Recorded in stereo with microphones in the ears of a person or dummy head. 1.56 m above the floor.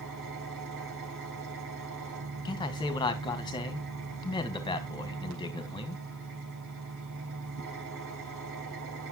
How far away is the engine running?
About 4 m.